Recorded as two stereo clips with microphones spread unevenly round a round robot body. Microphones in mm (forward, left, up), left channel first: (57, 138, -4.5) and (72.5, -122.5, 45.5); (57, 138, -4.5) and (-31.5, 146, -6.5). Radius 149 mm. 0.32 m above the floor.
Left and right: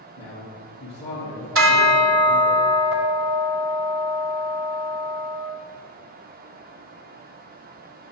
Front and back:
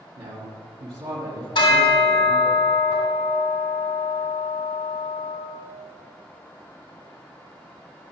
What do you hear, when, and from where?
0.2 s a man speaking: 165° left, 3.5 m
1.6 s a bell: 50° right, 2 m